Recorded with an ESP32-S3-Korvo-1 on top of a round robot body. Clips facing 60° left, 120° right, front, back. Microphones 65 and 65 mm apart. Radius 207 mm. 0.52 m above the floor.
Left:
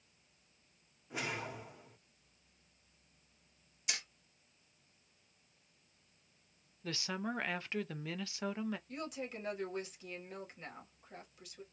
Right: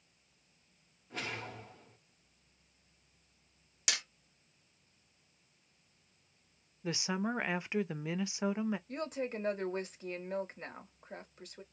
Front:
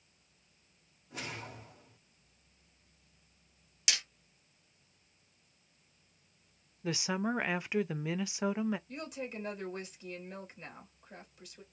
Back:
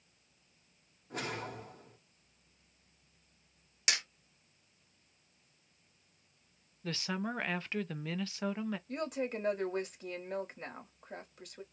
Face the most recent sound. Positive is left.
turn(degrees=-160)